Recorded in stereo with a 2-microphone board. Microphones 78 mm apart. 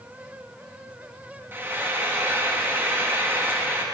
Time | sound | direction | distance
1.5 | frying | 30° right (ahead or behind) | 1.6 m